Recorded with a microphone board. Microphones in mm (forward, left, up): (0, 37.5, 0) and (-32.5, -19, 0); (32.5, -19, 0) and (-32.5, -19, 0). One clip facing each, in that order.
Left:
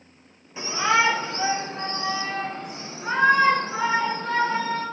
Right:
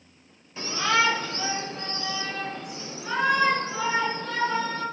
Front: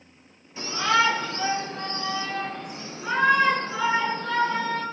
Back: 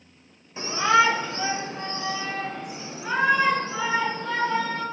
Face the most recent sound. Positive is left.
turn(degrees=95)